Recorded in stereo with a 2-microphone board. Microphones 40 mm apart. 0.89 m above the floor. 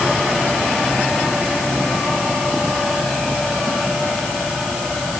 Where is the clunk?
No clunk in this recording.